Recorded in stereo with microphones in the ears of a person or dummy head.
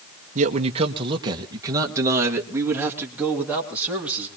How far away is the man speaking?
About 1.0 m.